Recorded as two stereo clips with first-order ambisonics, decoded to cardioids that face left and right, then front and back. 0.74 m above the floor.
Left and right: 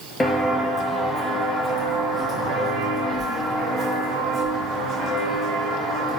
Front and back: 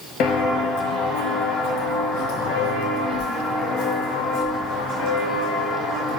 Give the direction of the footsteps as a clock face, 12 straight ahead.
11 o'clock.